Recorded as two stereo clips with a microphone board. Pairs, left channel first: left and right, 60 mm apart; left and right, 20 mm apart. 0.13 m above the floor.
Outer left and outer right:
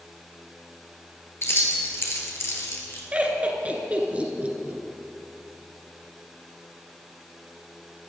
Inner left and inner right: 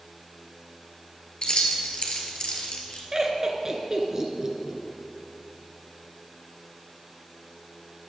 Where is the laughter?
25° right (ahead or behind), 1.4 m.